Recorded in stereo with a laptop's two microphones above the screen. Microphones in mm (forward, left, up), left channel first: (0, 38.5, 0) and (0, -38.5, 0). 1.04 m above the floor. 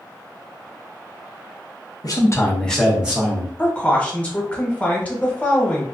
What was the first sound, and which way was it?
A man speaking, 55° left (ahead or behind).